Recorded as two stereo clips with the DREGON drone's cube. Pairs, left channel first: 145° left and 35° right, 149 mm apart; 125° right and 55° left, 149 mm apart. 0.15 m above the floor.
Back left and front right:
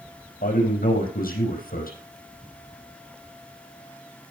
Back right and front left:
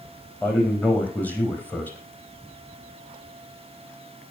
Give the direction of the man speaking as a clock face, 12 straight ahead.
7 o'clock.